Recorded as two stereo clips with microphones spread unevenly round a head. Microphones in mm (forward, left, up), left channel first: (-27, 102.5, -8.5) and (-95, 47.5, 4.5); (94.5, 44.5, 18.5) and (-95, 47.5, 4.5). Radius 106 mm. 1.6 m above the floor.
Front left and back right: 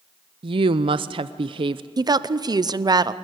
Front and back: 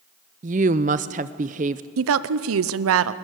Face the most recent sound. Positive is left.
turn(degrees=170)